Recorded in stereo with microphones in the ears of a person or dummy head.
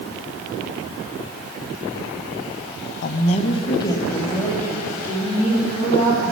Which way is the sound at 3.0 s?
55° left (ahead or behind).